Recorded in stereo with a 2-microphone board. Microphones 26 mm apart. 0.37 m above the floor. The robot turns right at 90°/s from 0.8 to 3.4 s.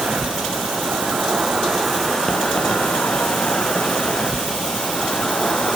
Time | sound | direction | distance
0.0 | an insect | 100° right | 1.7 m